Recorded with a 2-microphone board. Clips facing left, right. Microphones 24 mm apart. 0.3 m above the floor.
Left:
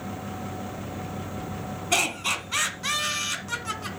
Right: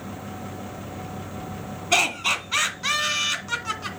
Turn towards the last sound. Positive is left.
turn(degrees=-20)  # may be behind; listen again after turning